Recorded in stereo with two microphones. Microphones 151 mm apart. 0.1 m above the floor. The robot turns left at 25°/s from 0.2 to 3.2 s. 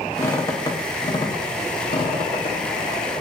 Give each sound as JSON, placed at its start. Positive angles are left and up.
{"t": 0.2, "sound": "a squeak", "side_deg": 20, "distance_m": 0.5}